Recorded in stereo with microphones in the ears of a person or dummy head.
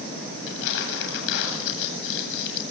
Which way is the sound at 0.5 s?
75° left (ahead or behind).